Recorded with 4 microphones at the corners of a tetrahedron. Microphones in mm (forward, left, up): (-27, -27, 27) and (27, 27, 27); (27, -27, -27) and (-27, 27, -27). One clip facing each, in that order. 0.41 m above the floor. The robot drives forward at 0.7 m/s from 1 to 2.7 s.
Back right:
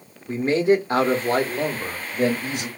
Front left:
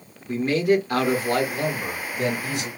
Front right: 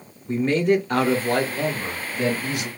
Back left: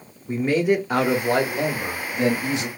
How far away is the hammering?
I don't hear hammering.